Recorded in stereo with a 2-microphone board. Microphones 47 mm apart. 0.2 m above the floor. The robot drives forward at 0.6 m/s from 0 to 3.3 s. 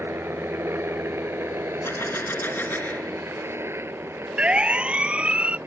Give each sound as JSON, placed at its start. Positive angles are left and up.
{"t": 0.0, "sound": "a helicopter", "side_deg": -60}
{"t": 1.8, "sound": "a gunshot", "side_deg": 60}
{"t": 4.4, "sound": "a siren", "side_deg": -25}